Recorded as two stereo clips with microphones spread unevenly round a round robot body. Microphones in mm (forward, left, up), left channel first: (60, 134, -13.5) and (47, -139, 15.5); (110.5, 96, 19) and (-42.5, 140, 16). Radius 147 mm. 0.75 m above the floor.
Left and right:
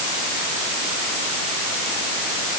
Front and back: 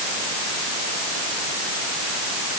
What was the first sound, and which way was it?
Only background noise.